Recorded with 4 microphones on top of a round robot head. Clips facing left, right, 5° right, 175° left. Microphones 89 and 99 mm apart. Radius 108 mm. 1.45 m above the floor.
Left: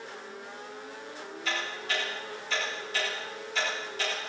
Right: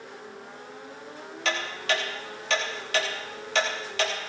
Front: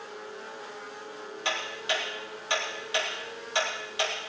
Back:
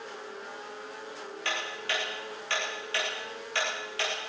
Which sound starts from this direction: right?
Ticking, at 1.4 s.